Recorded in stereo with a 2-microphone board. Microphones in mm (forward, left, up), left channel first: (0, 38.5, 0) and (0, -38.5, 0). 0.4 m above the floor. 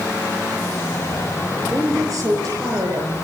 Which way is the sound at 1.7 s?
45° right (ahead or behind).